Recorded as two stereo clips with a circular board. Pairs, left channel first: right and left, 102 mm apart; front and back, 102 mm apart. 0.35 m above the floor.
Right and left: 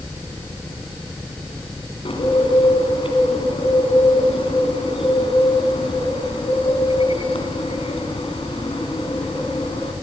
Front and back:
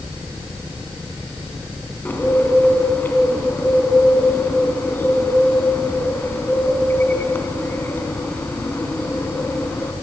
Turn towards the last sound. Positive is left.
turn(degrees=-70)